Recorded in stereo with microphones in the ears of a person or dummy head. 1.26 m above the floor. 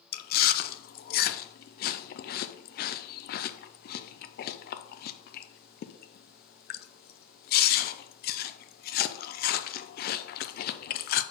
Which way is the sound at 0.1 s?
45° left (ahead or behind).